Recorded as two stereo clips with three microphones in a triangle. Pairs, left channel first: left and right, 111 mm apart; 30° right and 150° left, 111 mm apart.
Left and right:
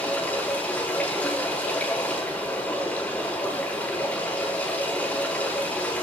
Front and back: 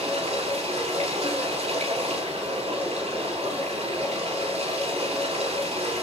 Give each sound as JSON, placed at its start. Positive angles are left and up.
{"t": 0.0, "sound": "running water", "azimuth_deg": 170, "distance_m": 5.5}